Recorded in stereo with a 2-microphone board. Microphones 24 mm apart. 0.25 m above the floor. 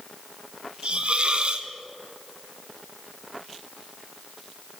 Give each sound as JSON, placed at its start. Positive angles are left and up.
{"t": 0.8, "sound": "a hiss", "side_deg": -50, "distance_m": 0.6}